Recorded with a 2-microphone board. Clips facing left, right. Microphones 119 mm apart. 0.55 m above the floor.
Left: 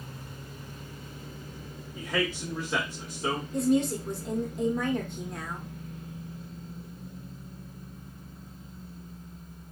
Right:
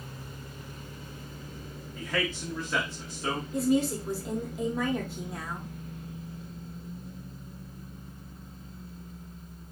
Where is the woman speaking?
5° right (ahead or behind), 0.8 m.